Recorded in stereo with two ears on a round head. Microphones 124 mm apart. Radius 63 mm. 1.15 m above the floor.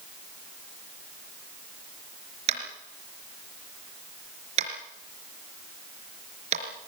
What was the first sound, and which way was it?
Tapping, 50° right (ahead or behind).